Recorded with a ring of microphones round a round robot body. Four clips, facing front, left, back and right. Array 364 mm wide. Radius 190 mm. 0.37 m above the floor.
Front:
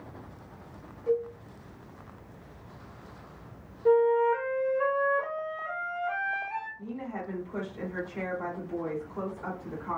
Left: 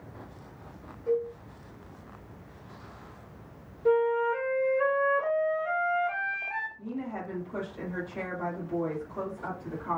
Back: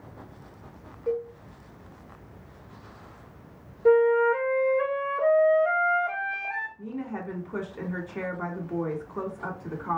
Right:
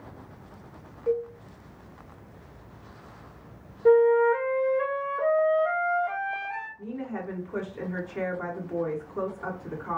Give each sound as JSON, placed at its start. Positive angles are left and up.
{"t": 1.1, "sound": "a cowbell", "azimuth_deg": -140, "distance_m": 1.7}
{"t": 3.9, "sound": "a flute", "azimuth_deg": -140, "distance_m": 1.3}
{"t": 6.8, "sound": "a woman speaking", "azimuth_deg": -160, "distance_m": 1.8}